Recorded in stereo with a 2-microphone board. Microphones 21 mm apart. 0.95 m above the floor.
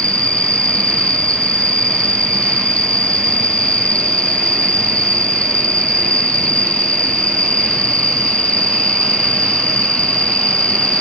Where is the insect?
55° left (ahead or behind).